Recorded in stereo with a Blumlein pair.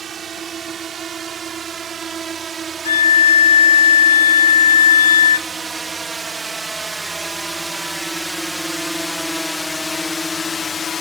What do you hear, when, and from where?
0.0 s a drone: 20° right; by 11.0 s 20° left
2.9 s a violin: 65° left